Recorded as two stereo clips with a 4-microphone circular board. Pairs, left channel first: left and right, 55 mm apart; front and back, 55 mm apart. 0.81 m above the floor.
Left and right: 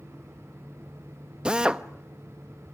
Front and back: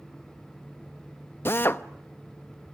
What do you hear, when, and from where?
1.4 s a drill: 20° right, 0.7 m